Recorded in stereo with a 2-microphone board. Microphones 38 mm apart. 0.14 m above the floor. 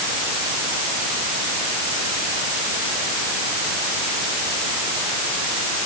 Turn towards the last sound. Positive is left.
No sound to turn to.